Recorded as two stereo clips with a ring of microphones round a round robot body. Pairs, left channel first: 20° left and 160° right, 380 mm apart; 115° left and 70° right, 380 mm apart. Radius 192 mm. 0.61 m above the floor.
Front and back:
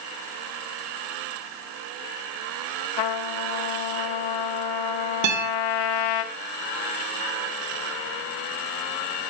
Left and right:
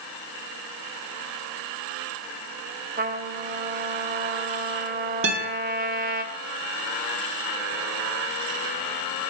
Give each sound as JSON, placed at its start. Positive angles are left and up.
{"t": 3.0, "sound": "a trumpet", "azimuth_deg": 0, "distance_m": 0.9}
{"t": 5.2, "sound": "a guitar", "azimuth_deg": -120, "distance_m": 2.0}